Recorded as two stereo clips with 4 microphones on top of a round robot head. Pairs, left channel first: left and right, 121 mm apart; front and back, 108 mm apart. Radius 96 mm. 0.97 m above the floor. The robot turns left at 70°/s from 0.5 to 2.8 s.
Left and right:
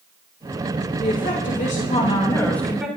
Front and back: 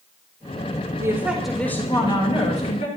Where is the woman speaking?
120° left, 3.5 m; by 2.9 s 5° right, 3.5 m.